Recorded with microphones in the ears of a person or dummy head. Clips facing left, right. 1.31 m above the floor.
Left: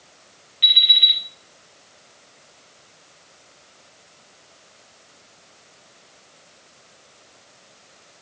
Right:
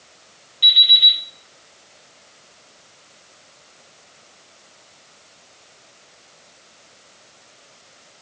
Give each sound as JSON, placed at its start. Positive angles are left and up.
{"t": 0.6, "sound": "an alarm clock", "side_deg": 35, "distance_m": 4.0}